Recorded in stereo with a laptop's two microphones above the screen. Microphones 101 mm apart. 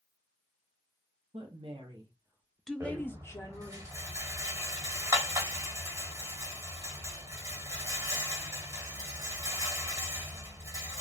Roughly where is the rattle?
Right.